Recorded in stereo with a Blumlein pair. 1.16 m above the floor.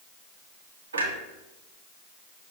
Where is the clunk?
70° right, 0.9 m.